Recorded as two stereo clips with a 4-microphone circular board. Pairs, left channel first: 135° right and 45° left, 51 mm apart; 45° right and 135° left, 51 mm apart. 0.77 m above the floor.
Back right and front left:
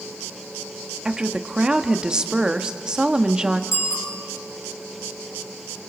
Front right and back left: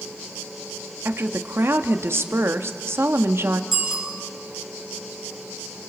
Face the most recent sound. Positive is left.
turn(degrees=-145)